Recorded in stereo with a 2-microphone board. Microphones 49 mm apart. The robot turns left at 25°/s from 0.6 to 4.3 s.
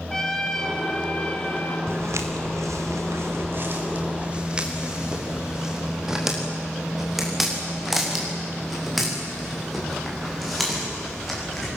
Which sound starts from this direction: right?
Footsteps, at 1.9 s.